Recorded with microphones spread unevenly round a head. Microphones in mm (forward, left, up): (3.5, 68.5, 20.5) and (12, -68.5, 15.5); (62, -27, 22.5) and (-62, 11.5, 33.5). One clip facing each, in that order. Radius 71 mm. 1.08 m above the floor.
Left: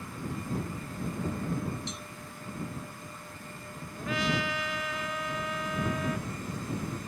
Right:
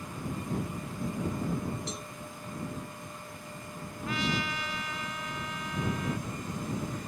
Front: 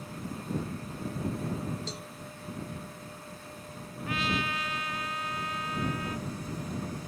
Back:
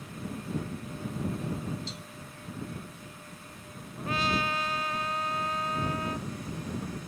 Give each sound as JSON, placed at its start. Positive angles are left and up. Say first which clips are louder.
{"t": 1.9, "sound": "a cowbell", "louder": "right 3 dB, front 3 dB", "azimuth_deg": -50}
{"t": 4.0, "sound": "a trumpet", "louder": "left 2 dB, back 2 dB", "azimuth_deg": 110}